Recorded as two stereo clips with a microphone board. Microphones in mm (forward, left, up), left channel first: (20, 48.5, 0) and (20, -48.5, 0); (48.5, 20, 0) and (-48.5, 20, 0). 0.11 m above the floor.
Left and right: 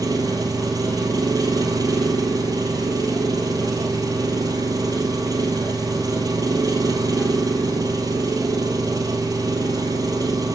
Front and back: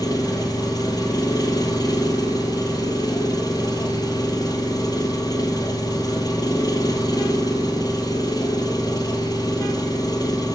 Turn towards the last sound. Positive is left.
turn(degrees=-45)